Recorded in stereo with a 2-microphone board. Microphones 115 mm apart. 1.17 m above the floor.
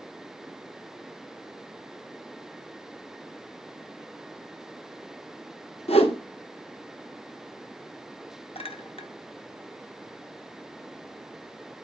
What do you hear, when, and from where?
5.9 s a whoosh: 65° left (ahead or behind), 1.1 m
8.6 s a clink: 60° left (ahead or behind), 1.0 m